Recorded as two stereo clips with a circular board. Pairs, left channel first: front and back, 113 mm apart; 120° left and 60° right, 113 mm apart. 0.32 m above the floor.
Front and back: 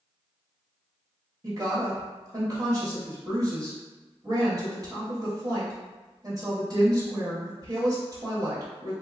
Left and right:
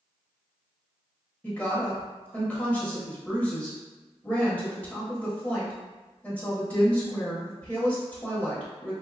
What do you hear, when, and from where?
1.4 s a woman speaking: 175° right, 1.1 m